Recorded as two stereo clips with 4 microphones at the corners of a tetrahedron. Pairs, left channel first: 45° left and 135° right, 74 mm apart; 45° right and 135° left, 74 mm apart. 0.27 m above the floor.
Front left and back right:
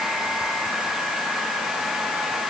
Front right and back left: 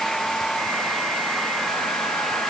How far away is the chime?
I don't hear a chime.